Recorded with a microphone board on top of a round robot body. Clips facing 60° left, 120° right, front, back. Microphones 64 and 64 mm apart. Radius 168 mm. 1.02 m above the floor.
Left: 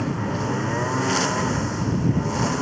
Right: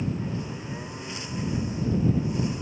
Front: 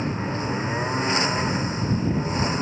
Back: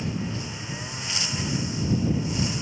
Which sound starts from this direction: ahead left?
A lawn mower, at 0.0 s.